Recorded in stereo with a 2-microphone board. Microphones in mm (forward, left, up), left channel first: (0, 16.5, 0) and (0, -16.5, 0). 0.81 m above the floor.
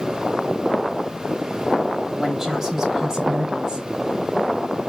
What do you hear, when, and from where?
2.1 s a woman speaking: 15° right (ahead or behind), 4.5 m; by 3.9 s 25° right (ahead or behind), 3.5 m